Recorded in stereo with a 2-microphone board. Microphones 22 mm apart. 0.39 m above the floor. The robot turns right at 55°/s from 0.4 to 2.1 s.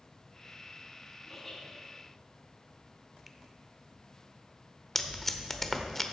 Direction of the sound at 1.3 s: 5° right (ahead or behind).